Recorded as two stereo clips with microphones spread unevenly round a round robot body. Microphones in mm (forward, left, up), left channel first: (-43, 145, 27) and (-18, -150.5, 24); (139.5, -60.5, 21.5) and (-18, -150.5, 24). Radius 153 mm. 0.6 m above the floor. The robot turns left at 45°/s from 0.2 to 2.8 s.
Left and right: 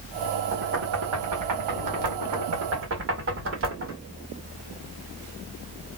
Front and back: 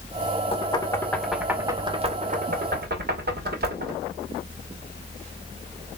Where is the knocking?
25° right, 2 m; by 4.0 s 130° right, 2 m.